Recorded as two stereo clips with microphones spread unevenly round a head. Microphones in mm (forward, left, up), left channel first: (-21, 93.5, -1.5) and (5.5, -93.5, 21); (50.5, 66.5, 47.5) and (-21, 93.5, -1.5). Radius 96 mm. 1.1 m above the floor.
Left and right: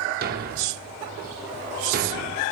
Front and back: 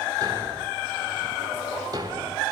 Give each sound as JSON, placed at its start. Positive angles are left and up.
{"t": 0.2, "sound": "a thud", "azimuth_deg": -115, "distance_m": 1.2}